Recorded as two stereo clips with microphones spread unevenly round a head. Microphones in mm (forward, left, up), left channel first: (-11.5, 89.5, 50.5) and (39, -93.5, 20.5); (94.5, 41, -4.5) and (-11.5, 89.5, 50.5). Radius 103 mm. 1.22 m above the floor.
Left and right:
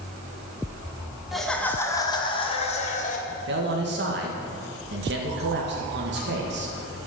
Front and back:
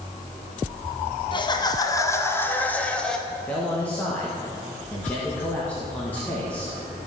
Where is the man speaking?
100° right, 1.5 m.